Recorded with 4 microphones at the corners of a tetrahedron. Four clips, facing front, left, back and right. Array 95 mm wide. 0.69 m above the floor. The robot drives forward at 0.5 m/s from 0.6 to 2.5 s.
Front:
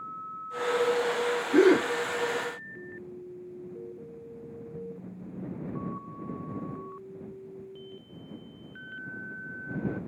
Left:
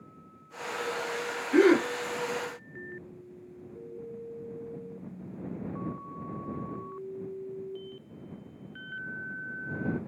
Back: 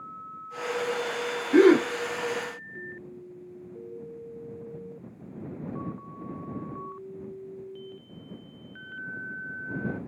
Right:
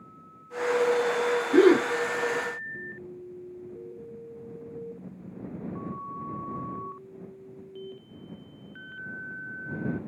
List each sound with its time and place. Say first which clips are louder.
1.5 s a gasp: right 2 dB, back 3 dB; 155° right, 1.3 m